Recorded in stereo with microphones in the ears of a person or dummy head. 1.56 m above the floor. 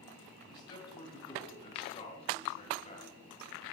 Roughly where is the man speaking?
Left.